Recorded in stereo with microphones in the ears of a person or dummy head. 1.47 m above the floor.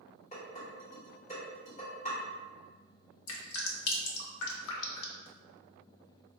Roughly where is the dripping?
Left.